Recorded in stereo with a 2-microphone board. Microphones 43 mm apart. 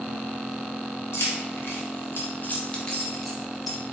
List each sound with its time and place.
1.1 s keys jangling: 65° left (ahead or behind), 0.9 m; by 3.8 s 10° right (ahead or behind), 1.0 m